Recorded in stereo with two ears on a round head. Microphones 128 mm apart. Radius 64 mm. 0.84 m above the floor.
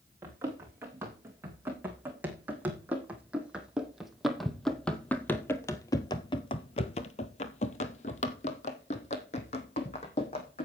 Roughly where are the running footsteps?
Centre.